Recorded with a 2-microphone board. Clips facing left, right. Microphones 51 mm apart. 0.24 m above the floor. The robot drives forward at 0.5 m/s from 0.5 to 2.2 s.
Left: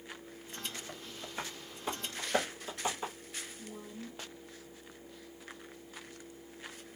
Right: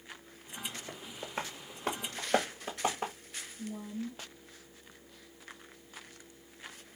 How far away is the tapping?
About 1.1 m.